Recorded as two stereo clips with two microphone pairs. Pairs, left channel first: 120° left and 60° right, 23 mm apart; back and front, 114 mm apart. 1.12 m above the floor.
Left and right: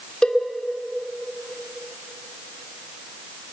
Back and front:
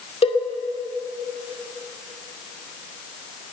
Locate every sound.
0.2 s a cowbell: 155° left, 2.5 m